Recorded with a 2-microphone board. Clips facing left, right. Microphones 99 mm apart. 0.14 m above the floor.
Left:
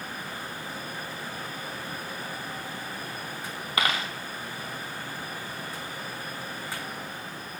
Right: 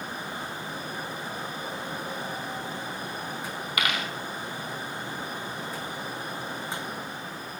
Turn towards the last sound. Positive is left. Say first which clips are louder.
# left 2 dB
turn(degrees=30)  # may be behind; listen again after turning